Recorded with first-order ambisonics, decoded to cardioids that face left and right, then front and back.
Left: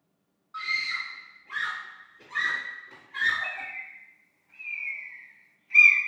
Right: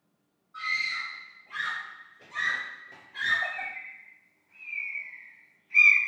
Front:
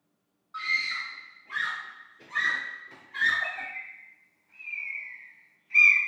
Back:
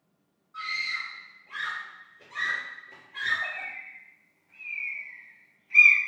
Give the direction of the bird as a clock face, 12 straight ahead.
9 o'clock.